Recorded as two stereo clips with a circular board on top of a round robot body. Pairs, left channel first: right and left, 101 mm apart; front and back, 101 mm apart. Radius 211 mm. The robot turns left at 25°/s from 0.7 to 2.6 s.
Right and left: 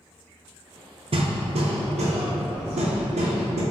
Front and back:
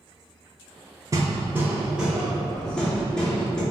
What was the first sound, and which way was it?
Hammering, 120° left.